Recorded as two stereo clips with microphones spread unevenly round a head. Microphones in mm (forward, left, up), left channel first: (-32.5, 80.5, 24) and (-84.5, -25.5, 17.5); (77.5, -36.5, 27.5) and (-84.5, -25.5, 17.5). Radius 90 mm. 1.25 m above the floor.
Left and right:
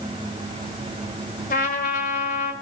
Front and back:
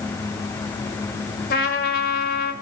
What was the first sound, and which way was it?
A trumpet, 35° left.